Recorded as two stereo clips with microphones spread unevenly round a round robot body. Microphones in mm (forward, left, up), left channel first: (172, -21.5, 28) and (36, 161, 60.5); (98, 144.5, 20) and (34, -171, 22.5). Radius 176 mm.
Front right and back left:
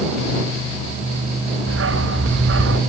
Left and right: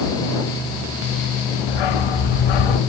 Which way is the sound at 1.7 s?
95° left.